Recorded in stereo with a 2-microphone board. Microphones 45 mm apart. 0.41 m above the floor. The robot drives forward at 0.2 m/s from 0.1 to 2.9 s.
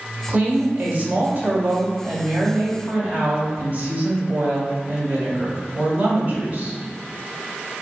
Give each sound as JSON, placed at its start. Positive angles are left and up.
{"t": 0.3, "sound": "a woman speaking", "side_deg": -40, "distance_m": 1.2}